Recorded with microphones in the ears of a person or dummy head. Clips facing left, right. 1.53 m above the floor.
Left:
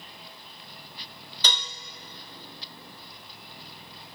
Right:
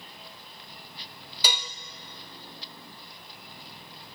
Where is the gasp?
I don't hear a gasp.